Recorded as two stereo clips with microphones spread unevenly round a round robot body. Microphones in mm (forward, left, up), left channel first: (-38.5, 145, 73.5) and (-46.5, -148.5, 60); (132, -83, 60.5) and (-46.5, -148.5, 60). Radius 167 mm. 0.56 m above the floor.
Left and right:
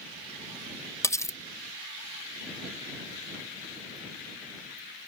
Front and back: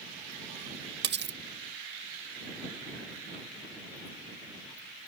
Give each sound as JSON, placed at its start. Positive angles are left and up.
{"t": 1.0, "sound": "cutlery clinking", "azimuth_deg": 170}